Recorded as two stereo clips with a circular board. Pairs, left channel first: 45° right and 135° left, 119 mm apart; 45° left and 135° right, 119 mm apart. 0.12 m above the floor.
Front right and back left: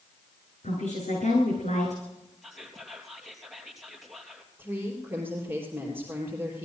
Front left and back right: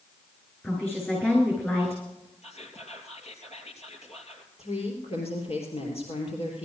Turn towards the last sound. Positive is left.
turn(degrees=65)